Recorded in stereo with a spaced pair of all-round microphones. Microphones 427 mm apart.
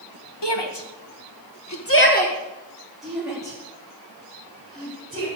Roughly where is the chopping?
No chopping in this recording.